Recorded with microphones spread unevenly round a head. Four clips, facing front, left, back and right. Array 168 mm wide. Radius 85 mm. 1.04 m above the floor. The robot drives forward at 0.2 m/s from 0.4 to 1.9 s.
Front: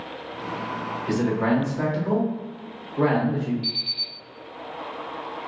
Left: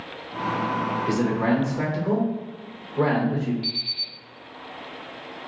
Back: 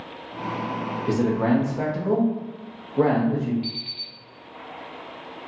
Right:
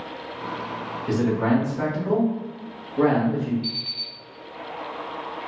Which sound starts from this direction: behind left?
An alarm clock, at 3.6 s.